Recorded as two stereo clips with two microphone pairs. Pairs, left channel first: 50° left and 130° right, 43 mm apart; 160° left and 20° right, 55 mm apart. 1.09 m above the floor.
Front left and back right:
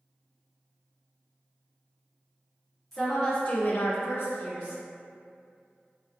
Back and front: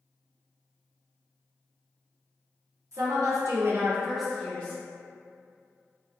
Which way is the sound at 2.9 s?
35° right.